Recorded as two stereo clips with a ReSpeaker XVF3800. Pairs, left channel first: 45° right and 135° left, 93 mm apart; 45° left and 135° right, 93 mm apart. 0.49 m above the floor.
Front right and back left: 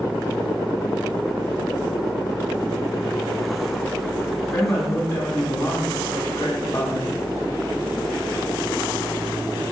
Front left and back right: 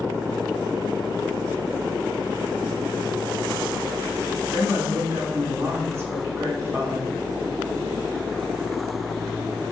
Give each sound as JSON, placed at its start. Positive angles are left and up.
{"t": 4.5, "sound": "a woman speaking", "azimuth_deg": -90, "distance_m": 0.9}